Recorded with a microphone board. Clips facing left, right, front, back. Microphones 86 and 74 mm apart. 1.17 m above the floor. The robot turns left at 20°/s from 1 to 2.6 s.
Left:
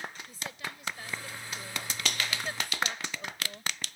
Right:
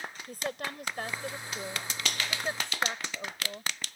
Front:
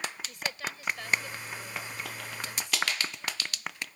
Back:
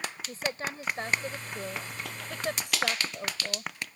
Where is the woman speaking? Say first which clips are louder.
Right 5 dB, back 3 dB; 125° right; by 3.7 s 160° right.